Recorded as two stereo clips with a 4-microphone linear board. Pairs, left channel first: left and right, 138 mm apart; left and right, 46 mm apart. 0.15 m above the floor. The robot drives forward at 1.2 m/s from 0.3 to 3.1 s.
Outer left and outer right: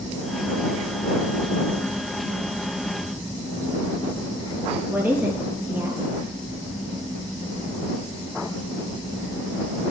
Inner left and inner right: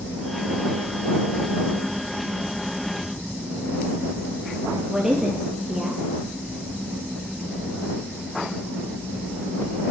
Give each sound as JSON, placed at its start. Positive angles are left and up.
{"t": 4.9, "sound": "a woman speaking", "side_deg": -15, "distance_m": 3.0}